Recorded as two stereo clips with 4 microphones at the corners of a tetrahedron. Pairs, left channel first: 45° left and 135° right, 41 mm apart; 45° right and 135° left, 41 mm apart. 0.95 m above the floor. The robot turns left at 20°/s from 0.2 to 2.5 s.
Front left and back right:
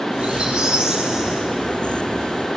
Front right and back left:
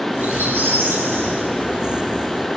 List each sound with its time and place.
0.1 s a squeak: 160° left, 8.5 m; by 2.3 s 115° left, 8.5 m